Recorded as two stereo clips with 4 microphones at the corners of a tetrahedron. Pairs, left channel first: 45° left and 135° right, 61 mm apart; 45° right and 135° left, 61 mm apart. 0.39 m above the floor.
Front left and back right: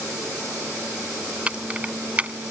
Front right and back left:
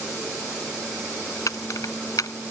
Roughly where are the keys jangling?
Ahead right.